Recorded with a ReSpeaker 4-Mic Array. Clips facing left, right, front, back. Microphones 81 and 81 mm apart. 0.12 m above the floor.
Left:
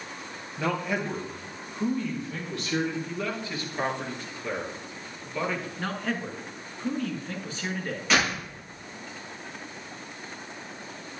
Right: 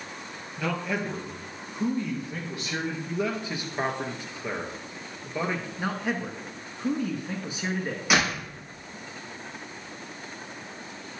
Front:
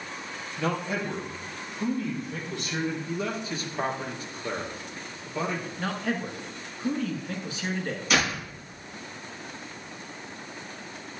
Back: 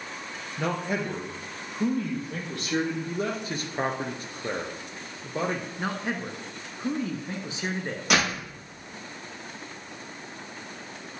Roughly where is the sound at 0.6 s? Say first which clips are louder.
Left 1 dB, back 1 dB; behind.